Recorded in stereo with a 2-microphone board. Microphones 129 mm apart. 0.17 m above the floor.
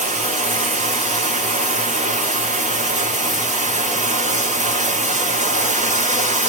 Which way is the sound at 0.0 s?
60° right (ahead or behind).